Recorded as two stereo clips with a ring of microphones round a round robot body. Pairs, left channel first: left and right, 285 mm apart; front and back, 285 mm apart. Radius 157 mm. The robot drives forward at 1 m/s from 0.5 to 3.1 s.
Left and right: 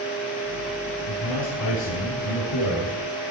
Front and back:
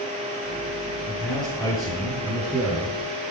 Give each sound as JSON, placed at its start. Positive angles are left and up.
{"t": 1.1, "sound": "a man speaking", "azimuth_deg": 70, "distance_m": 4.5}